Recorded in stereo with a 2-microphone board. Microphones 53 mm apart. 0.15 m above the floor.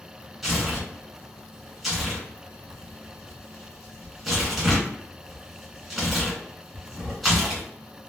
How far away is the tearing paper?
About 1.7 m.